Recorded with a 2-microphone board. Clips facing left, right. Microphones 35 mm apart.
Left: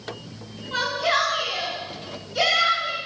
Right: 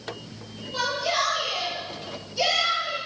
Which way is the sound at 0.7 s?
75° left (ahead or behind).